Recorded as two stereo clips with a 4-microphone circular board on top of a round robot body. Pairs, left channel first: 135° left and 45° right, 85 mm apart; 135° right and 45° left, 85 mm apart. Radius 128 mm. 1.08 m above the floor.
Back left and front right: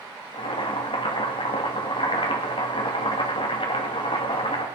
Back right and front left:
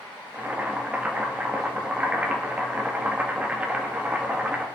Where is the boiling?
120° left, 2 m.